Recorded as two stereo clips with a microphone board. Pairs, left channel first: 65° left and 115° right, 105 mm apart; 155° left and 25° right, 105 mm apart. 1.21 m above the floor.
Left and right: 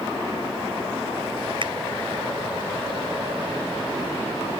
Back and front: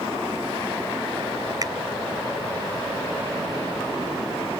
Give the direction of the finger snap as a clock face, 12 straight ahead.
2 o'clock.